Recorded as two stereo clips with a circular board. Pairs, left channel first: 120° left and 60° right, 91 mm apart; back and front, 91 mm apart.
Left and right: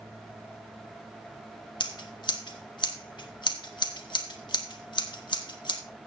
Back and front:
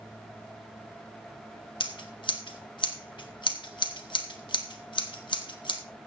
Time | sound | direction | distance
1.8 | scissors | 155° left | 1.6 m